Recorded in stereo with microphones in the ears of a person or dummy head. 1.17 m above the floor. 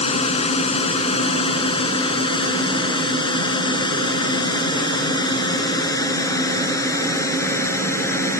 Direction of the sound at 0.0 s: 35° left (ahead or behind).